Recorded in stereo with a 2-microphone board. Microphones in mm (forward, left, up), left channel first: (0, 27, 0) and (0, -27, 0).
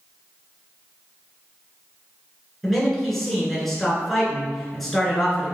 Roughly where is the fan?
No fan in this recording.